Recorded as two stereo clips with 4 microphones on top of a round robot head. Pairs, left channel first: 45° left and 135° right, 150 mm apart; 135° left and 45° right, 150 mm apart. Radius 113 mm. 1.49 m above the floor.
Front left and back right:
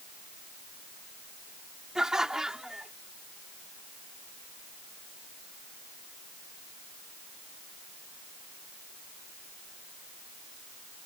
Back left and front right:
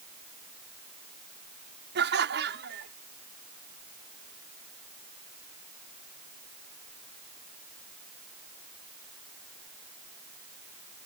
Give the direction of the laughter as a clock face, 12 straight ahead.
2 o'clock.